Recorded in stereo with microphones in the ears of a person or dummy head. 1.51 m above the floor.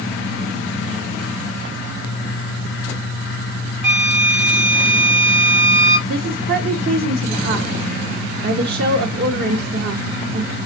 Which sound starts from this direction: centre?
A flute, at 3.8 s.